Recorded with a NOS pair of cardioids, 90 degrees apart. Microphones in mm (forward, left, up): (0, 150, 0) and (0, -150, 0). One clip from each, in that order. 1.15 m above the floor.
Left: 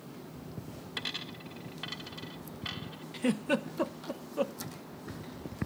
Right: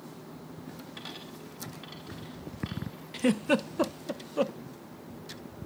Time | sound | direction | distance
1.0 | a dropped coin | 55° left | 2.5 m
3.1 | a giggle | 20° right | 0.6 m